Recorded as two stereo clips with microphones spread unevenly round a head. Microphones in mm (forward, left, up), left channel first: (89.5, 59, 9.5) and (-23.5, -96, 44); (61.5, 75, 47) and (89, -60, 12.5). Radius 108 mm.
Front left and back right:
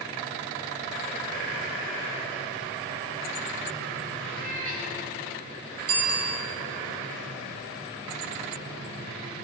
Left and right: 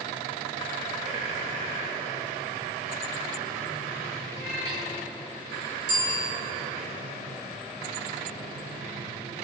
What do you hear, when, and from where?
4.3 s a cat meowing: 80° right, 6 m
5.9 s a bicycle bell: 120° right, 3 m